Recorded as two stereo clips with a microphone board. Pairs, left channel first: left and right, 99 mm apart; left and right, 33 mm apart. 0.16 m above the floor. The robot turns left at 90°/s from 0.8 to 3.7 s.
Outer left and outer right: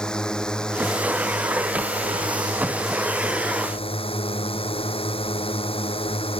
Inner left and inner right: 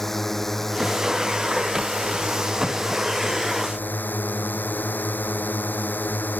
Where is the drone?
10° left; by 6.4 s 105° left.